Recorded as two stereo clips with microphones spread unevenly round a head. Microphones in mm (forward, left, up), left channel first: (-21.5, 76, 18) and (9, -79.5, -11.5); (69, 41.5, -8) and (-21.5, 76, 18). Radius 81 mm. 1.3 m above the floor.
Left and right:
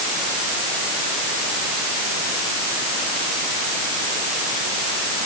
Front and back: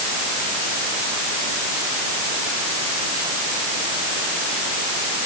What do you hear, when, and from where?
Only background noise.